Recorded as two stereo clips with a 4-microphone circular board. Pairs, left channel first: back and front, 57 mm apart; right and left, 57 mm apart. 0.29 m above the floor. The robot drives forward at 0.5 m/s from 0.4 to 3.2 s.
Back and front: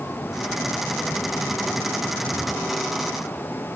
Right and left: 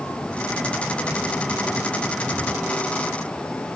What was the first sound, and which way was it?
Only background noise.